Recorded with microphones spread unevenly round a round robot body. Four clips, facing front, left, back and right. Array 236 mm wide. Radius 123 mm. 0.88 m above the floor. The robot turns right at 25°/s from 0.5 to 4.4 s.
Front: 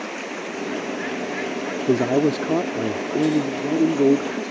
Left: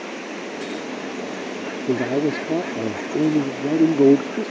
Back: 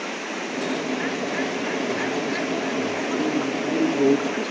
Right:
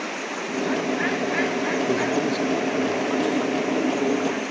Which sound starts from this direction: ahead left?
A man speaking, at 1.9 s.